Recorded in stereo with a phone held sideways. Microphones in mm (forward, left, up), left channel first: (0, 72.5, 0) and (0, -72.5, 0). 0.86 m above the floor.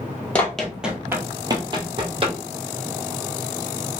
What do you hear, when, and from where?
0.3 s running footsteps: 10° left (ahead or behind), 1.0 m; by 2.4 s 40° right (ahead or behind), 1.4 m